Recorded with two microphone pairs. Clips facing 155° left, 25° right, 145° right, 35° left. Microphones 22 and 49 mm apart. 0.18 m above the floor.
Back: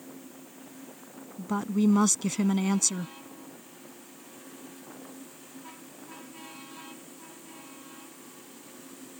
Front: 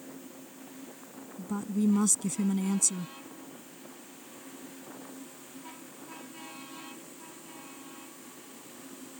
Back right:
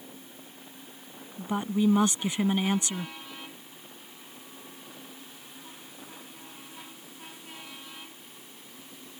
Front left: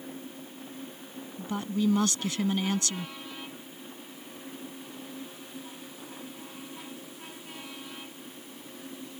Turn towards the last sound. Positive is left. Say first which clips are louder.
# back 4 dB, back right 3 dB
turn(degrees=155)